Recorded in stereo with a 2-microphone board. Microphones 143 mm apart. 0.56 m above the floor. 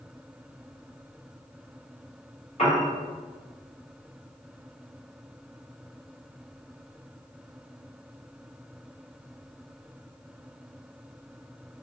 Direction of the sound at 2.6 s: 50° left (ahead or behind).